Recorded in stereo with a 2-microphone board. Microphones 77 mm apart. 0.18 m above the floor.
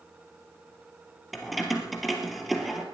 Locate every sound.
1.3 s keys jangling: centre (ahead or behind), 2.5 m